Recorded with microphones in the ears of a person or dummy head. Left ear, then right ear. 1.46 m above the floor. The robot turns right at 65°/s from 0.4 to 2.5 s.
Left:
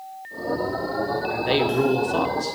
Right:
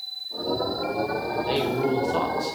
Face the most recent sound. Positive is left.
turn(degrees=-165)